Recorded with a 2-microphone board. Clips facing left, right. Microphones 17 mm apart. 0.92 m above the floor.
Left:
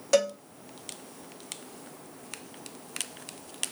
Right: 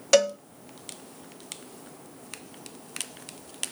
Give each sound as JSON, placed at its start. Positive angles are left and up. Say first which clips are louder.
{"t": 0.1, "sound": "a cowbell", "louder": "right 4 dB", "side_deg": -40, "distance_m": 0.8}